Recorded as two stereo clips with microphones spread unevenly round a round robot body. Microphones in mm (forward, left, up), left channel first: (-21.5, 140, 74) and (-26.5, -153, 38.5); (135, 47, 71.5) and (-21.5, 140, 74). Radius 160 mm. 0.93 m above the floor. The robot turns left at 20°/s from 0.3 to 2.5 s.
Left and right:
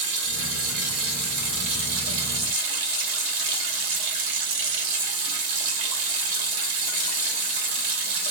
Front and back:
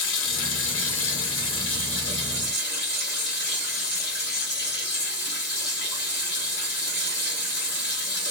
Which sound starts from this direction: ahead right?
Running water, at 0.0 s.